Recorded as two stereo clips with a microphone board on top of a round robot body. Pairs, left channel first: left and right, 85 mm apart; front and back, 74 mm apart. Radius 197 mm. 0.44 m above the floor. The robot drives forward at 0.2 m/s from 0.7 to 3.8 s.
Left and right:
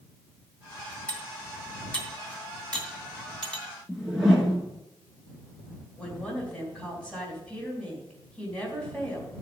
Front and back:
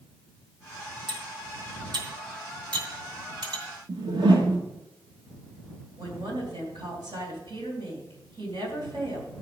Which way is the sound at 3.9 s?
175° right.